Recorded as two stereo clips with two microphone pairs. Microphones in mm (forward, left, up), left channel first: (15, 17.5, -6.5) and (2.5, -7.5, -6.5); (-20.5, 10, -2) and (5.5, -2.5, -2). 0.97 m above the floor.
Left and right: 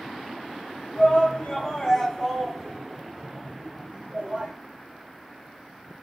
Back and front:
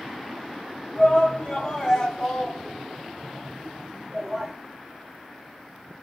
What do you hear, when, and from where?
0.9 s a shout: 100° left, 1.2 m; by 4.5 s 95° right, 1.3 m